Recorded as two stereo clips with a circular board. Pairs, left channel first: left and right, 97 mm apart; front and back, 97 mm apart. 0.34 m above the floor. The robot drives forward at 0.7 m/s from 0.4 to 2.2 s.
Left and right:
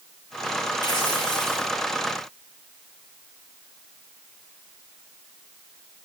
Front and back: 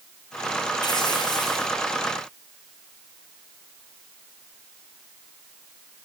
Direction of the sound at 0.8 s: 45° left.